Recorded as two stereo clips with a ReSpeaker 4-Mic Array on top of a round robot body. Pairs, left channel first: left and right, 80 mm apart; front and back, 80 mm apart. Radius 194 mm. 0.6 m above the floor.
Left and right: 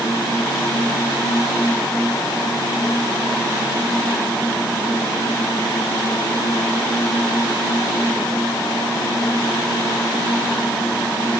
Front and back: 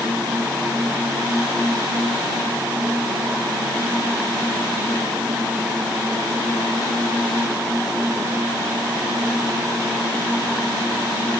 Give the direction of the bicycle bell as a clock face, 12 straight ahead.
No bicycle bell in this recording.